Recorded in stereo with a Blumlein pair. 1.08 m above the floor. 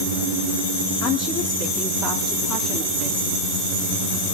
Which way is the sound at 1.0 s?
35° left.